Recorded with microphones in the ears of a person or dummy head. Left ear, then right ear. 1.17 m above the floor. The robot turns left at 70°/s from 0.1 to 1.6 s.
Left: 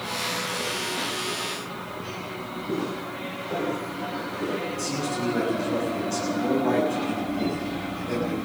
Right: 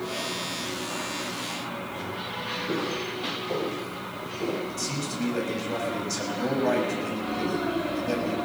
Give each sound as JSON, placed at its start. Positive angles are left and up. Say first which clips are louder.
{"t": 2.7, "sound": "footsteps", "louder": "right 1 dB", "side_deg": -75, "distance_m": 9.0}
{"t": 4.7, "sound": "a man speaking", "louder": "left 3 dB", "side_deg": -85, "distance_m": 6.5}